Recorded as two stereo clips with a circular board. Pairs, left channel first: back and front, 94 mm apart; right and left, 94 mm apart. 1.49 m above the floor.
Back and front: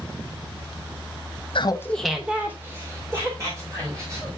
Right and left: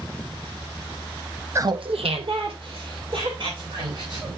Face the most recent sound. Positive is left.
turn(degrees=55)